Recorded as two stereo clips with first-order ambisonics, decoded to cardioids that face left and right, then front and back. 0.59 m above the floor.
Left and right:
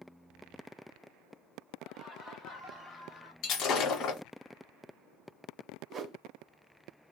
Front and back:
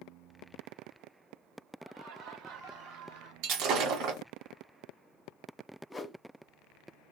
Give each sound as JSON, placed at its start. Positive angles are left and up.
{"t": 1.8, "sound": "laughter", "azimuth_deg": -170, "distance_m": 2.0}
{"t": 3.4, "sound": "breaking glass", "azimuth_deg": 150, "distance_m": 1.6}
{"t": 5.9, "sound": "a whoosh", "azimuth_deg": -70, "distance_m": 0.6}